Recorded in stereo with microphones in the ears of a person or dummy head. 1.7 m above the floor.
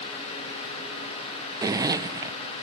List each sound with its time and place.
1.6 s a zipper: 15° right (ahead or behind)